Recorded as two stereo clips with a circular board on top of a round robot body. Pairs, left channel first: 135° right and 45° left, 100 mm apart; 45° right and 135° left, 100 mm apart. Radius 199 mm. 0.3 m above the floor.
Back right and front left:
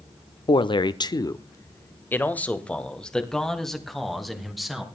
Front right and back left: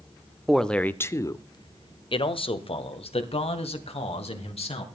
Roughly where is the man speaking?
Behind right.